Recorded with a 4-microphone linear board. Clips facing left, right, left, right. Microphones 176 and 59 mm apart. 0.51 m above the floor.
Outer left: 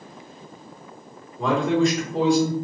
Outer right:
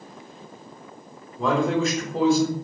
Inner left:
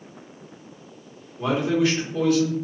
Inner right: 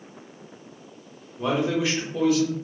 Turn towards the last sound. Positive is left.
turn(degrees=0)  # may be behind; listen again after turning